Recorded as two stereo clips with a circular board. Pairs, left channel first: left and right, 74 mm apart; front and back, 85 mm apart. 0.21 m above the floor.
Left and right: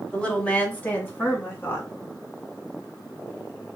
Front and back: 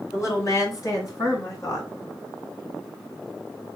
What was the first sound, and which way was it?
A woman speaking, 25° left.